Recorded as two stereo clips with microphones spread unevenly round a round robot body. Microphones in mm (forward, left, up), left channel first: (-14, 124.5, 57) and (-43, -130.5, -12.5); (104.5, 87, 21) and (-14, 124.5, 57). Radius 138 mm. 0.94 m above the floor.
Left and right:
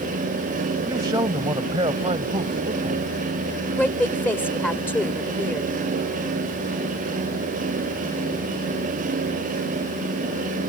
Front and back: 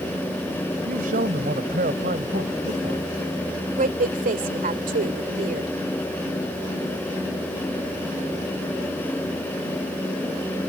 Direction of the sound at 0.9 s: 175° right.